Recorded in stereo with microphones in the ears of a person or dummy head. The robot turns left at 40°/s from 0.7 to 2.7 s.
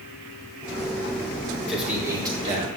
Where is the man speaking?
Straight ahead, 4 m; by 2.7 s 40° right, 4 m.